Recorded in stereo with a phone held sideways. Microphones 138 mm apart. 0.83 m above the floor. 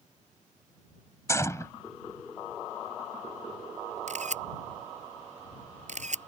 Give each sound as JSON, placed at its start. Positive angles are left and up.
{"t": 1.3, "sound": "a gunshot", "side_deg": 20}
{"t": 4.1, "sound": "a camera shutter", "side_deg": -60}